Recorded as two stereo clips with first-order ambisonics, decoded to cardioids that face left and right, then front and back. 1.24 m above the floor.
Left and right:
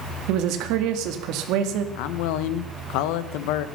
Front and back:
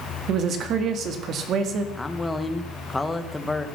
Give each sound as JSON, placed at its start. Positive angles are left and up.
{"t": 0.3, "sound": "a woman speaking", "azimuth_deg": -125, "distance_m": 2.0}
{"t": 1.9, "sound": "a man speaking", "azimuth_deg": 80, "distance_m": 1.3}